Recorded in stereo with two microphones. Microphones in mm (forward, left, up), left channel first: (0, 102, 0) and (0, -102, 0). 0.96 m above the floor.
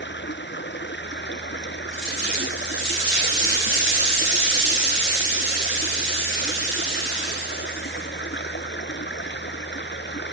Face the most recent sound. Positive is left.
turn(degrees=60)  # may be behind; listen again after turning